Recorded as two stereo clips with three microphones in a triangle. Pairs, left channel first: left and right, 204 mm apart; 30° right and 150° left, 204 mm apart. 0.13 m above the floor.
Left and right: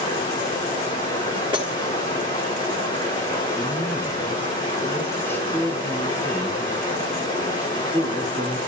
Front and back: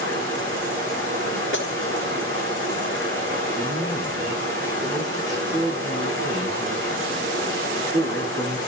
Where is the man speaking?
170° left, 5.5 m.